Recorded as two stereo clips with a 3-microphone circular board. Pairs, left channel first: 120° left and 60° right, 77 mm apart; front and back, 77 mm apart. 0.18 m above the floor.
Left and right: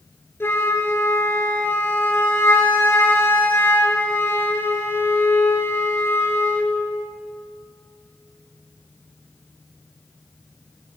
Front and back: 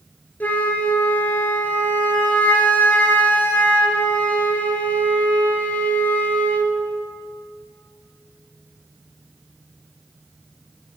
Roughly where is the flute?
Ahead left.